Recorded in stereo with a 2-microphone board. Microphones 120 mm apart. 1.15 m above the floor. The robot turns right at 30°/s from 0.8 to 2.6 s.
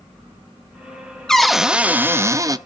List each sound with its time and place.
1.3 s a cupboard door: 175° left, 0.7 m; by 2.6 s 145° right, 0.7 m